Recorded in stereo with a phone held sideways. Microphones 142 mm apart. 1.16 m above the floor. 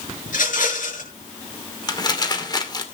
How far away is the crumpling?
About 2.5 m.